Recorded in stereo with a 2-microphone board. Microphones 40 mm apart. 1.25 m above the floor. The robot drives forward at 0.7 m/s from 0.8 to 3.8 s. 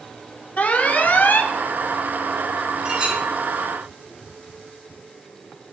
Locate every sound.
0.6 s an alarm: 40° left (ahead or behind), 1.0 m; by 1.5 s 55° left (ahead or behind), 0.8 m
2.9 s a clink: 20° right (ahead or behind), 6.5 m